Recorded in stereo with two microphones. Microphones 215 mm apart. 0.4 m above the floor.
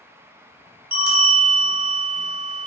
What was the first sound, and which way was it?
A bell, 40° left (ahead or behind).